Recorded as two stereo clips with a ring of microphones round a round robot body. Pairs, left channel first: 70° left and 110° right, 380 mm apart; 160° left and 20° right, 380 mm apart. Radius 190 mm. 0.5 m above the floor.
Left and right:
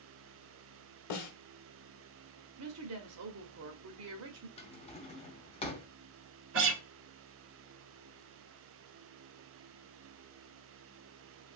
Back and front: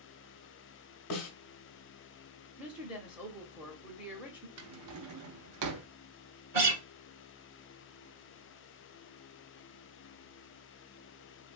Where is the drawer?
Straight ahead, 0.7 m.